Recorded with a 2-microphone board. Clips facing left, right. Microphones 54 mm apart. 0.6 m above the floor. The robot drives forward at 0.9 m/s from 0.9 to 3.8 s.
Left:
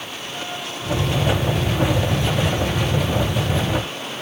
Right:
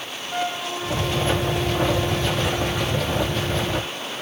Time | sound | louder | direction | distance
0.3 | a flute | right 6 dB | 75° right (ahead or behind) | 5.5 m